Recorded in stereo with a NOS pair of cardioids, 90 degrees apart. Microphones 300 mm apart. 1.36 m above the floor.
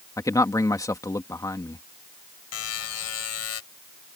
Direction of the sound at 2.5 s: 55° left.